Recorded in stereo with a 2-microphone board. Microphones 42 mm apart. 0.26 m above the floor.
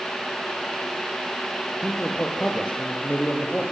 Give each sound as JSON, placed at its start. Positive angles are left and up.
{"t": 1.8, "sound": "a man speaking", "side_deg": 25, "distance_m": 5.5}